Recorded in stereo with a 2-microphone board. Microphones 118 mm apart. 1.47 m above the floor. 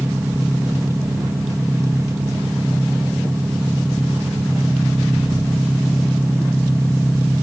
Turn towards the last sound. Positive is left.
turn(degrees=-25)  # may be behind; listen again after turning